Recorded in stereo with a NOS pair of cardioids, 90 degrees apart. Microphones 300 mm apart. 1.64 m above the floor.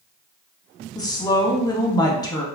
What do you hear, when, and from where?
0.9 s a woman speaking: 10° left, 1.0 m